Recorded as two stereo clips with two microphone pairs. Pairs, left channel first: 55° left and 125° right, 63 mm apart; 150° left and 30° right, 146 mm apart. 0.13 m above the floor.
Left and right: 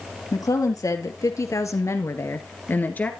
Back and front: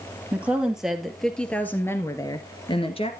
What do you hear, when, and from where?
0.3 s a woman speaking: 45° left, 3 m; by 3.1 s 115° left, 1.9 m